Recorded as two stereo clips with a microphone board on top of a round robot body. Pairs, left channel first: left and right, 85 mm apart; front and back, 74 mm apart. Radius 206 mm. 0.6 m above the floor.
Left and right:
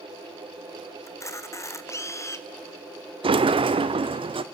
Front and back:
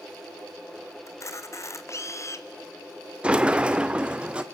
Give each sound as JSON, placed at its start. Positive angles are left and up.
{"t": 1.1, "sound": "a camera shutter", "azimuth_deg": 40, "distance_m": 1.7}
{"t": 3.2, "sound": "a sliding door", "azimuth_deg": -105, "distance_m": 0.8}